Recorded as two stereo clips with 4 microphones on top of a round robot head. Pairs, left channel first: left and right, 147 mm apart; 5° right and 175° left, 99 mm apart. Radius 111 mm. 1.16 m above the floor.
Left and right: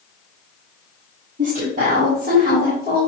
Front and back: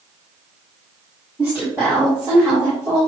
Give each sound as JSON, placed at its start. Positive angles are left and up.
{"t": 1.4, "sound": "a woman speaking", "azimuth_deg": -120, "distance_m": 3.0}